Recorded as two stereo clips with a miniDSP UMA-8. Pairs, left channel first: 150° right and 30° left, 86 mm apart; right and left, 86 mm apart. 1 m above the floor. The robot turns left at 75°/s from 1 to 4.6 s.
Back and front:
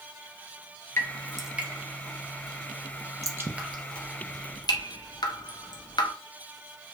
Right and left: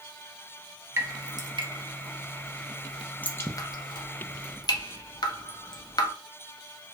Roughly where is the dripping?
Behind left.